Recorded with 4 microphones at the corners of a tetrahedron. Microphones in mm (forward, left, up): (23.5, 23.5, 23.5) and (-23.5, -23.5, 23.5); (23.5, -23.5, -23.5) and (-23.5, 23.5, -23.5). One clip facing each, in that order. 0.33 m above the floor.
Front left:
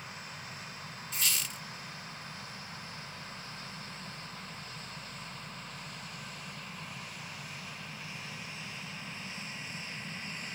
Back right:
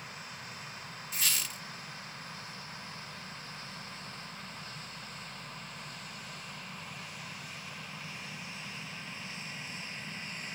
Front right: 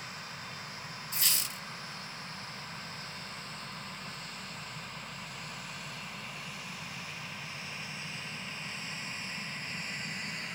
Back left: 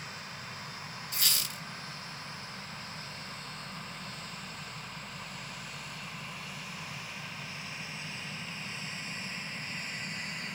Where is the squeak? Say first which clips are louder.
Even, back left 1 dB; 140° left, 1.5 m.